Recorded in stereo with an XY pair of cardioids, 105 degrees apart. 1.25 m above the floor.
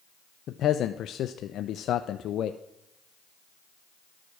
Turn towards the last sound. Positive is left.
turn(degrees=65)